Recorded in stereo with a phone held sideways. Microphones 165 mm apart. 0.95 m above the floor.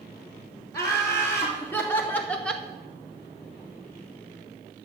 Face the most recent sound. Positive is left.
turn(degrees=0)  # may be behind; listen again after turning